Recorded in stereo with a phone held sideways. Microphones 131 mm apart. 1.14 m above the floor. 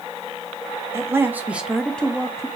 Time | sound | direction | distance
0.9 | a man speaking | 20° right (ahead or behind) | 1.1 m